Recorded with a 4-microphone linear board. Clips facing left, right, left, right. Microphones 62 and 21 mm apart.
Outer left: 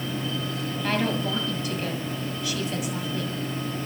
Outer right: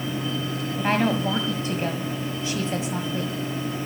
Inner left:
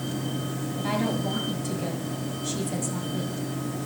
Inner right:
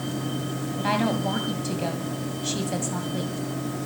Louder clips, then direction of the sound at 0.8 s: Outer right 4 dB, inner right 3 dB; 30° right (ahead or behind).